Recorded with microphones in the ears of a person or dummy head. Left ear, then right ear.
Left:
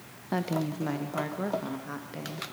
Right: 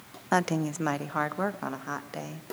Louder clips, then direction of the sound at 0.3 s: Right 5 dB; 50° right (ahead or behind).